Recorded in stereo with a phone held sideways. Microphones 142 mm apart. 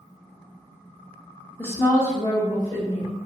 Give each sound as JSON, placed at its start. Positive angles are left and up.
{"t": 1.6, "sound": "a woman speaking", "side_deg": 15, "distance_m": 0.6}